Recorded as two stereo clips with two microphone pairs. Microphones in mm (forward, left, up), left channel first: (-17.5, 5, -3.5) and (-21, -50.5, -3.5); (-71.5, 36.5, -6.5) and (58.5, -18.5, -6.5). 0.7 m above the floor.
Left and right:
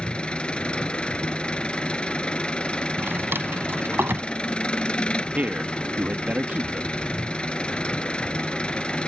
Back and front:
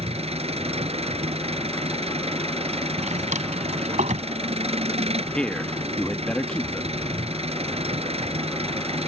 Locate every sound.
0.0 s an engine running: 15° left
3.0 s a drawer: 45° right
5.3 s a man speaking: 125° right